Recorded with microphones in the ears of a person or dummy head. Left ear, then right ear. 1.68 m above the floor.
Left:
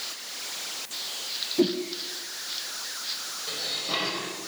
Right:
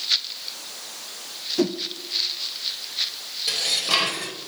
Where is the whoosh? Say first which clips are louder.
Even; 35° right (ahead or behind), 1.5 m.